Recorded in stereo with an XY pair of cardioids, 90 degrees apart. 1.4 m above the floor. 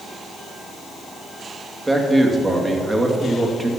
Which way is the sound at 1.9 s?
15° right.